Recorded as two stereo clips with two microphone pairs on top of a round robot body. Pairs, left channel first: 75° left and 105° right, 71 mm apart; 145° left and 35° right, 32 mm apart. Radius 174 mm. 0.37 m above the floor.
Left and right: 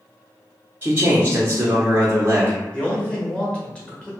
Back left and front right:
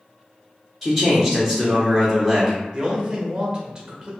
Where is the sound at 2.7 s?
10° left, 1.5 m.